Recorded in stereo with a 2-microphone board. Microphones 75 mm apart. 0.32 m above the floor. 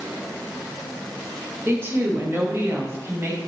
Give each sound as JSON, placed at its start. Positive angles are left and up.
{"t": 1.6, "sound": "a woman speaking", "side_deg": -30, "distance_m": 1.6}